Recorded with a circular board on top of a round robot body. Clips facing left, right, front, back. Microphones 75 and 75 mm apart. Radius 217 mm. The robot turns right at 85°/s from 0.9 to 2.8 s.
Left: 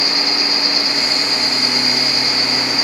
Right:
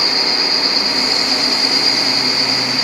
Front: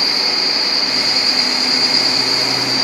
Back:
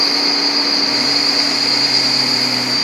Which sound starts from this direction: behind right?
An insect, at 0.0 s.